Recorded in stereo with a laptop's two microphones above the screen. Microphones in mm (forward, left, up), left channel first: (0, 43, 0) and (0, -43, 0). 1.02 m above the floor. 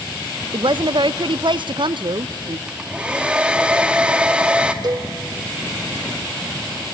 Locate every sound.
0.5 s a woman speaking: 65° right (ahead or behind), 0.5 m
2.7 s a hair dryer: 10° right (ahead or behind), 0.7 m
4.8 s a cowbell: 55° right (ahead or behind), 0.6 m